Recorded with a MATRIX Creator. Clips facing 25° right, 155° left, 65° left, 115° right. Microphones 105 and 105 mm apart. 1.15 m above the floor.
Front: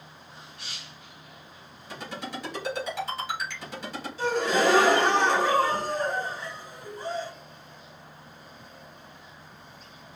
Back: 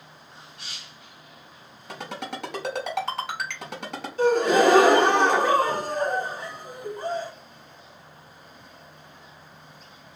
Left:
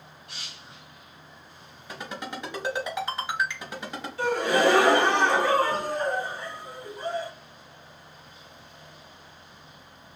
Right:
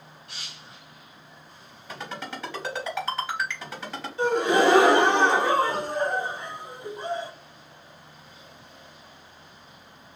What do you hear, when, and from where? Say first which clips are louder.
1.9 s a ringtone: back 2 dB, even; 140° left, 3.5 m
4.2 s a gasp: back 6 dB, right 2 dB; straight behind, 1.1 m